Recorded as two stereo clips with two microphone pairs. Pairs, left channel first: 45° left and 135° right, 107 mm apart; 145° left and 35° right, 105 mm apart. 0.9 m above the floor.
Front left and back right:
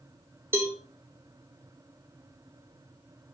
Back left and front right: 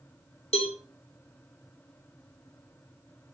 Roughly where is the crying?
No crying in this recording.